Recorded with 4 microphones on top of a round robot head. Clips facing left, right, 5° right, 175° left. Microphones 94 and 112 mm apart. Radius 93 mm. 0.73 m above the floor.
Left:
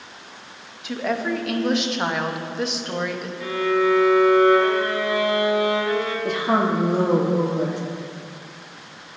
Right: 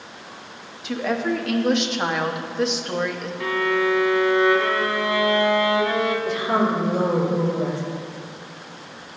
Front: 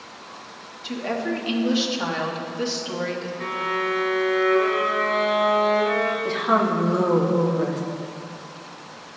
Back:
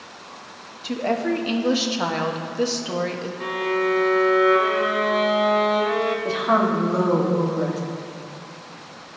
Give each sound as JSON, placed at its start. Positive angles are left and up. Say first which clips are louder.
{"t": 0.8, "sound": "a woman speaking", "louder": "right 1 dB, back 4 dB", "azimuth_deg": 180, "distance_m": 0.9}
{"t": 3.4, "sound": "a violin", "louder": "left 1 dB, back 5 dB", "azimuth_deg": -110, "distance_m": 1.2}
{"t": 6.2, "sound": "a woman speaking", "louder": "even, back 1 dB", "azimuth_deg": 95, "distance_m": 1.5}